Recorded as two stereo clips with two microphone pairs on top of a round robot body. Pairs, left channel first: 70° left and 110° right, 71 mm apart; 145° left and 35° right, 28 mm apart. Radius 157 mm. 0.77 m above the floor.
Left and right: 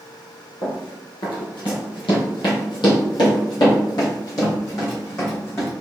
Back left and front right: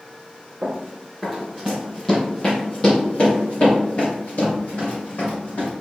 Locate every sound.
0.6 s running footsteps: 30° left, 1.9 m; by 5.7 s 110° left, 3.5 m